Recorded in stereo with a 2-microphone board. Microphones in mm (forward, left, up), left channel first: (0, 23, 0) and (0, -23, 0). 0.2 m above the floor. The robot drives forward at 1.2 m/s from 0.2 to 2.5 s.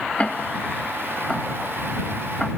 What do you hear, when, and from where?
0.2 s ticking: 30° left (ahead or behind); by 2.5 s 10° left (ahead or behind)